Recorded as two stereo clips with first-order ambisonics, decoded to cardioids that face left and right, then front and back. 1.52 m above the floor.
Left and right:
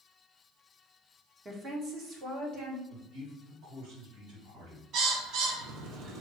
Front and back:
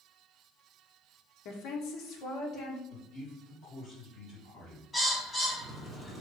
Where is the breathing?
No breathing in this recording.